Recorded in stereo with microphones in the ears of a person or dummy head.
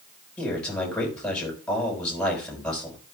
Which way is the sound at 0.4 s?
10° left (ahead or behind).